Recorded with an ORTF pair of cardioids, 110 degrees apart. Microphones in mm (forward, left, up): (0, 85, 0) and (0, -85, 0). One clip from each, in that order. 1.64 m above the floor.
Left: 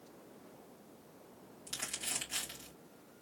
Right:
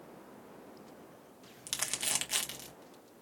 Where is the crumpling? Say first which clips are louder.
Right 6 dB; 65° right, 1.3 m.